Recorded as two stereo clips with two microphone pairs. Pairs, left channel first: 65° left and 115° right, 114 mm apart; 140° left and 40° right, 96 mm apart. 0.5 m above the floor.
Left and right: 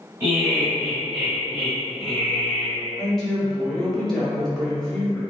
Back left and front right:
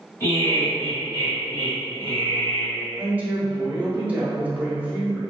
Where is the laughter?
175° right, 2.0 m; by 2.8 s 135° left, 1.6 m.